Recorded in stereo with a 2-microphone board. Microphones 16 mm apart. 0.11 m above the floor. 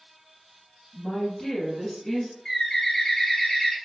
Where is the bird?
25° left (ahead or behind), 1.6 m.